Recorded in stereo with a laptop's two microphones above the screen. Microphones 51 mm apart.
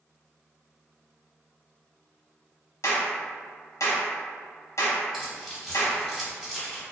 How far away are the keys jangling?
About 1.4 m.